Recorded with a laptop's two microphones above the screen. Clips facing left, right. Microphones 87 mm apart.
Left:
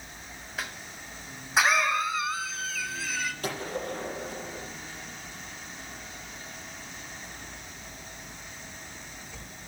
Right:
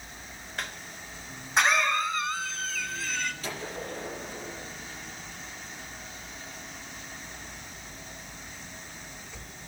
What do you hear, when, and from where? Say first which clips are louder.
0.6 s a cough: even; 5° left (ahead or behind), 0.7 m
3.4 s a gunshot: left 3 dB; 50° left (ahead or behind), 5.5 m